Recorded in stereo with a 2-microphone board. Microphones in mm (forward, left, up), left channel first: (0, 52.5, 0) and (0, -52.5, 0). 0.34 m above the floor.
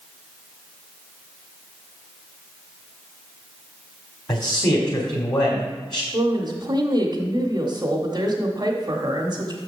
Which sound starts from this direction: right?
A woman speaking, at 6.1 s.